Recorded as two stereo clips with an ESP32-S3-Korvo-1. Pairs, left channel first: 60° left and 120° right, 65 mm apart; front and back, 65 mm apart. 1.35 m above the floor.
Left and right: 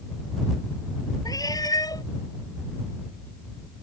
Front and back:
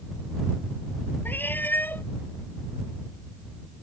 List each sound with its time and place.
1.2 s a cat meowing: 60° left